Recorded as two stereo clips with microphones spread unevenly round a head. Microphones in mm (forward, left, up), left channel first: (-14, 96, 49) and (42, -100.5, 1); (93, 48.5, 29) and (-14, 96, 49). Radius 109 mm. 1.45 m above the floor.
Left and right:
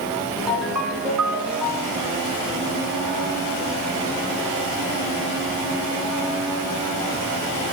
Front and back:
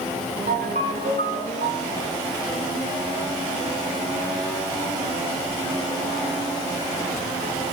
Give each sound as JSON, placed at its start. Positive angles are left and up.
{"t": 0.5, "sound": "a ringtone", "azimuth_deg": -165, "distance_m": 8.5}